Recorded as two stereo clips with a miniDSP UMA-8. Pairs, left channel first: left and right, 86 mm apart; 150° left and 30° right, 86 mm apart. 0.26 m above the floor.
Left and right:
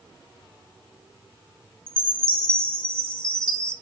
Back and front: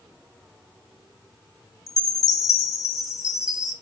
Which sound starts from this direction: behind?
A chime, at 1.9 s.